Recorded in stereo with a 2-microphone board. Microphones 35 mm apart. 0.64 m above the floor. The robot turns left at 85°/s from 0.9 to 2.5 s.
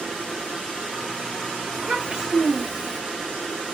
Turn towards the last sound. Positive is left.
turn(degrees=-175)